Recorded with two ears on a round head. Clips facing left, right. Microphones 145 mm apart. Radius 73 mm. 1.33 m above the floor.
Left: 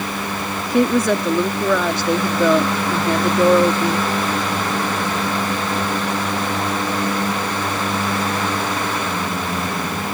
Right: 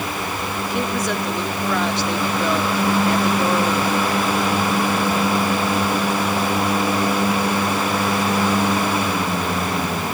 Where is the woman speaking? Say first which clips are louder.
Left 9 dB; 80° left.